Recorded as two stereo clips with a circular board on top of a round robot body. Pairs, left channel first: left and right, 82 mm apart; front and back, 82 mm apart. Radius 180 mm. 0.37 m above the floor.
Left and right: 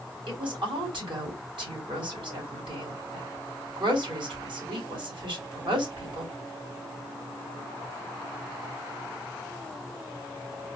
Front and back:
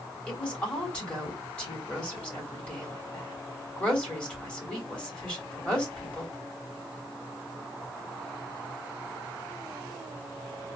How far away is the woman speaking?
About 3.5 m.